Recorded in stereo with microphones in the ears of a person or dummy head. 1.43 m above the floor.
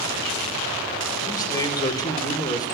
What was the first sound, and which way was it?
A man speaking, 20° left (ahead or behind).